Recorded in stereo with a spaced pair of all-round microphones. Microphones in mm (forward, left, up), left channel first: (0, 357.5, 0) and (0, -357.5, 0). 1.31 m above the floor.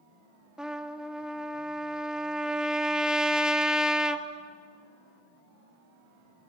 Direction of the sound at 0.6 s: Centre (ahead or behind).